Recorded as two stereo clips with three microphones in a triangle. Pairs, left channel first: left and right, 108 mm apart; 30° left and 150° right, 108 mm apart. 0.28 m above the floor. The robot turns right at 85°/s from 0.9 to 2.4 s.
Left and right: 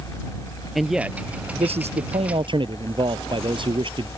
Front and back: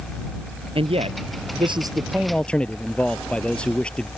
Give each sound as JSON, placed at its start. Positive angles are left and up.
{"t": 0.8, "sound": "a man speaking", "azimuth_deg": 180}